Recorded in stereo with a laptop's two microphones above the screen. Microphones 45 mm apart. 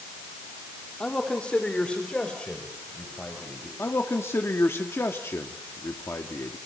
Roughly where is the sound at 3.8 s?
Left.